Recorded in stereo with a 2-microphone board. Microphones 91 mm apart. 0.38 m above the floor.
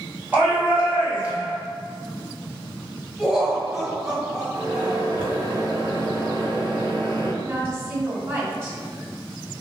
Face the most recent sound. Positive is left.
turn(degrees=-35)  # may be behind; listen again after turning